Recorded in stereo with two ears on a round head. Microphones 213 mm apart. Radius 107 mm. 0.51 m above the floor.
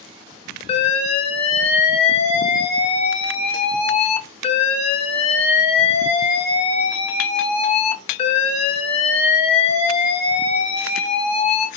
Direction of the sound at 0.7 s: 25° left (ahead or behind).